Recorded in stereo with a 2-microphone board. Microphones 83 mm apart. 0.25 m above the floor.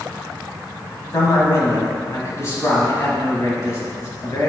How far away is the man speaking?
About 1.4 m.